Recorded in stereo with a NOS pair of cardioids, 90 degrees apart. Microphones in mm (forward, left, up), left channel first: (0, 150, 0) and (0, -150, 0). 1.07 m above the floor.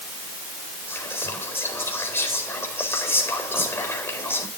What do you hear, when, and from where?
0.9 s whispering: 10° left, 4 m